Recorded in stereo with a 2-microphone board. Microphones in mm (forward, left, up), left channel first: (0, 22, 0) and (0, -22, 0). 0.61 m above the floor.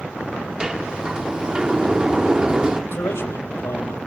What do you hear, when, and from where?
0.6 s a sliding door: 15° right (ahead or behind), 0.6 m
2.9 s a man speaking: 75° left (ahead or behind), 3.5 m